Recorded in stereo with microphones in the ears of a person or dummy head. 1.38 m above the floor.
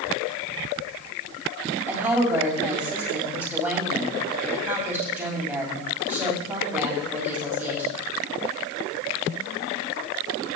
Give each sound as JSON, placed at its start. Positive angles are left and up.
{"t": 1.9, "sound": "a woman speaking", "side_deg": -15, "distance_m": 2.5}